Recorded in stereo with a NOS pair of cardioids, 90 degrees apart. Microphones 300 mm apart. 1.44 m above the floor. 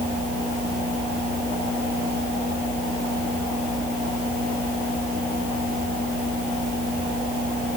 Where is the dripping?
No dripping in this recording.